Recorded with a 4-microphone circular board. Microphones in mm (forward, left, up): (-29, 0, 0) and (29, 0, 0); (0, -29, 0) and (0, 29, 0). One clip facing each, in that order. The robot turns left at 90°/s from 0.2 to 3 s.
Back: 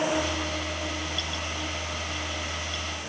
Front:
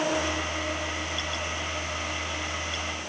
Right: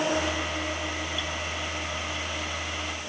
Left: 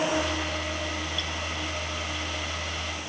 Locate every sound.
Only background noise.